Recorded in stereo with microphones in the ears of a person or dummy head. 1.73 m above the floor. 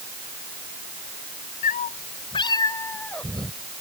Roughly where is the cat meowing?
Left.